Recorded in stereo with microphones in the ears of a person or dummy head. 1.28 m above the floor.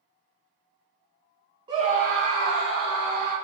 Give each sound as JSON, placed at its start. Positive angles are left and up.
{"t": 1.7, "sound": "a scream", "side_deg": -20, "distance_m": 1.2}